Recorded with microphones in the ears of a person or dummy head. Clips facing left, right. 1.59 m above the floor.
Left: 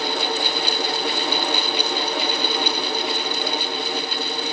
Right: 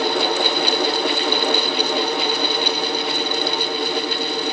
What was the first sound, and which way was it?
Only background noise.